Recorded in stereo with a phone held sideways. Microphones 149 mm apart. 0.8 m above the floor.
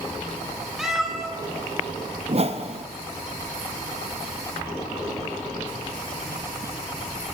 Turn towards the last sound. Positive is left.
turn(degrees=-45)  # may be behind; listen again after turning